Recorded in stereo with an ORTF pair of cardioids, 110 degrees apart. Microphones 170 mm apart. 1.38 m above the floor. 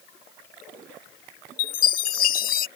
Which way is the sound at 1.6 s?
55° left.